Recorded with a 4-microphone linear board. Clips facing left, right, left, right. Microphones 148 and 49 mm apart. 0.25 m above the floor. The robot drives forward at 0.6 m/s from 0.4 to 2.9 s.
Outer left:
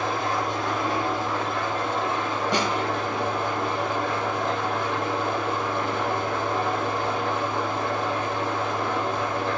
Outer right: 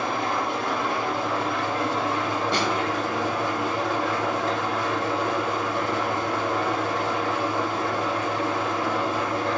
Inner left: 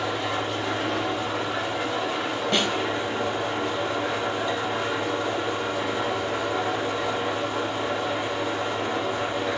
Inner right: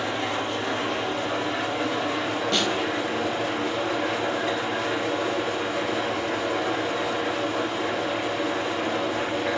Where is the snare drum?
20° left (ahead or behind), 0.9 m.